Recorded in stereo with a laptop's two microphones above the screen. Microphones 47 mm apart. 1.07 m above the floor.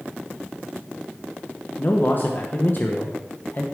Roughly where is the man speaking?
Left.